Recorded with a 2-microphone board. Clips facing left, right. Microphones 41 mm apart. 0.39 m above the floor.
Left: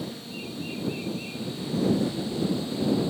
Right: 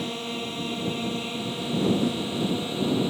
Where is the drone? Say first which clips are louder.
Right 5 dB; 55° right (ahead or behind); by 3.1 s 50° right (ahead or behind).